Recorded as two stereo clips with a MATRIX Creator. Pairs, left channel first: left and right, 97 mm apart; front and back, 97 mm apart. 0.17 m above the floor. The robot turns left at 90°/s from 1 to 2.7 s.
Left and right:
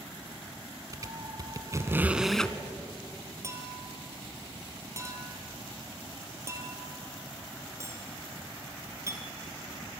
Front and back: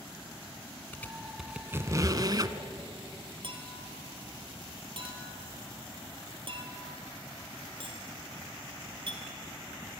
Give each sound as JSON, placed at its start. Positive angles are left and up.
{"t": 0.9, "sound": "a squeak", "azimuth_deg": -60, "distance_m": 1.0}
{"t": 3.4, "sound": "a clink", "azimuth_deg": -150, "distance_m": 3.0}